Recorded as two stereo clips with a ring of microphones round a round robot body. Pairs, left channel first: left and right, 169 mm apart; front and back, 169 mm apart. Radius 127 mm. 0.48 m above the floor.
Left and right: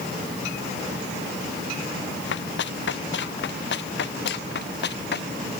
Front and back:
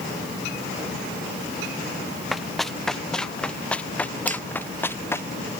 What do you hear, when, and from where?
2.3 s running footsteps: 90° left; by 5.3 s 75° left
4.3 s a finger snap: 135° left